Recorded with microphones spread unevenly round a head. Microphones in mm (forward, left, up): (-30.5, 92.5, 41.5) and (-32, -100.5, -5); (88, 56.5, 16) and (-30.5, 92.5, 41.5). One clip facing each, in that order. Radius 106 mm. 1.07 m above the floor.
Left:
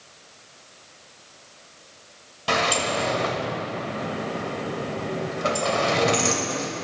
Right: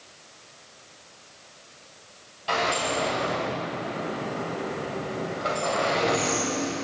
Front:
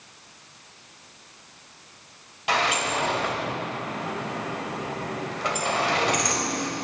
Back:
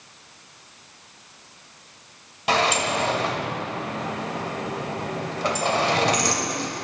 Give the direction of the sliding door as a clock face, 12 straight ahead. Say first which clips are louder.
Left 2 dB, back 3 dB; 8 o'clock.